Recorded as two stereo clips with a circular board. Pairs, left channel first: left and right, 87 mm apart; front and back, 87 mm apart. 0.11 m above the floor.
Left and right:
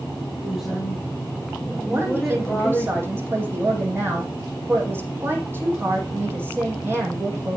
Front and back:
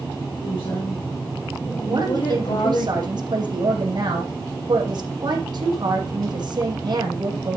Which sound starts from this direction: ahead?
A woman speaking, at 0.4 s.